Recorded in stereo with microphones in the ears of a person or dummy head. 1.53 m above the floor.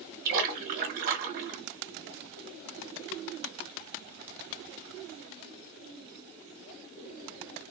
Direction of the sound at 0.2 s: 45° right (ahead or behind).